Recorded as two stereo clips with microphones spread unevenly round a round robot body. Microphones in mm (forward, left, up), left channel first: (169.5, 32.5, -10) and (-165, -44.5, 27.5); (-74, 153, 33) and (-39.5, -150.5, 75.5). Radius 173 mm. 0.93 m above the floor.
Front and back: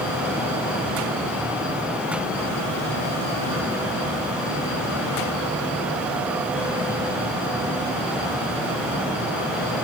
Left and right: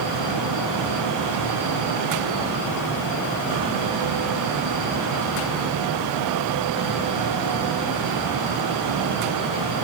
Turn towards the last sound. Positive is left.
No sound to turn to.